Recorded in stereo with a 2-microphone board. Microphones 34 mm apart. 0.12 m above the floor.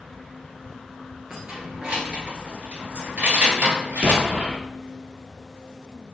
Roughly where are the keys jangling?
Centre.